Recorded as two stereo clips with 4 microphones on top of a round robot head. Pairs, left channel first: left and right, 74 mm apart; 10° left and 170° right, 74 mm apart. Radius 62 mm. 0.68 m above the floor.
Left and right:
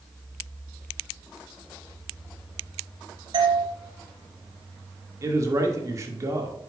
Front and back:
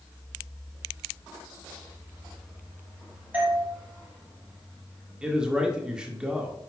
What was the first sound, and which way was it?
A doorbell, 95° right.